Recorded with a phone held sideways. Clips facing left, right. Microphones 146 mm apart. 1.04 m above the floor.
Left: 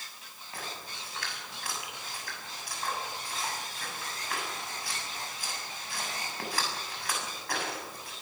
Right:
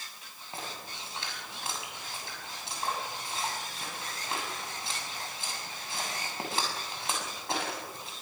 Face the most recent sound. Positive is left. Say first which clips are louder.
# right 1 dB
turn(degrees=-25)  # may be behind; listen again after turning